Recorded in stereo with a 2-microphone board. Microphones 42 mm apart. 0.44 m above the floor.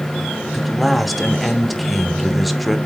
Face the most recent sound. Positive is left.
turn(degrees=0)  # may be behind; listen again after turning